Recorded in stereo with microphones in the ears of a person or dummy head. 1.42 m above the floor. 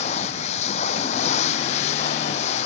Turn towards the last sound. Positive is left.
turn(degrees=45)  # may be behind; listen again after turning